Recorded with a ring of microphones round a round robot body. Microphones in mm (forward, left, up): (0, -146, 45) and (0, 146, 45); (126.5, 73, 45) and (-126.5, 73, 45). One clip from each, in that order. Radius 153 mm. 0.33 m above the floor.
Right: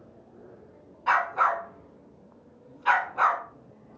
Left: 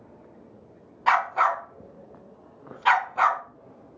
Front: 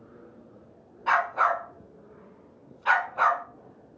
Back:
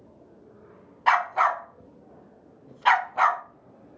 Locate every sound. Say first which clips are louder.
1.1 s a dog barking: left 2 dB, back 2 dB; 150° left, 0.9 m